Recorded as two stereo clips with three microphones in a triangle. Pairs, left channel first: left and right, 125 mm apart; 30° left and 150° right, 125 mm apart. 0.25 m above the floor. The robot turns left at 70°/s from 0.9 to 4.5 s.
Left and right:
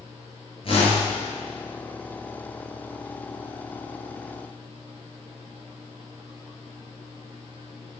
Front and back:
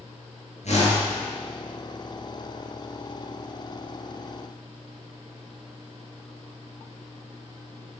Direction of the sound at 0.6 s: 50° left.